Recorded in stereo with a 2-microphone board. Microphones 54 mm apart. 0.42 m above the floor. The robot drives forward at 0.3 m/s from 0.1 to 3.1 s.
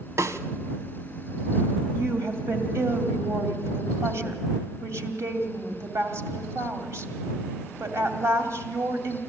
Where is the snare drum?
70° right (ahead or behind), 1.0 m; by 0.4 s 65° right (ahead or behind), 1.0 m.